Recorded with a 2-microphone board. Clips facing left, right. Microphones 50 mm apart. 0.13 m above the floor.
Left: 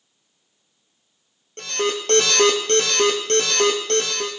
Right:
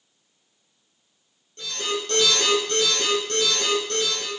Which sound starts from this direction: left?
An alarm, at 1.6 s.